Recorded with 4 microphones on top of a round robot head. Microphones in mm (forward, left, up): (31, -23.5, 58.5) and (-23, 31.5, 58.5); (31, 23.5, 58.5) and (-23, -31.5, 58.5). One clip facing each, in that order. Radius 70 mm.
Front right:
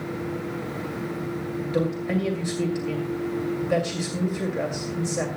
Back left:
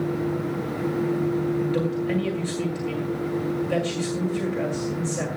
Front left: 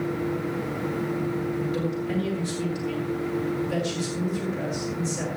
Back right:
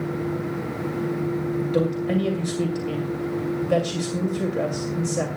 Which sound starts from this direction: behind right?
A man speaking, at 1.6 s.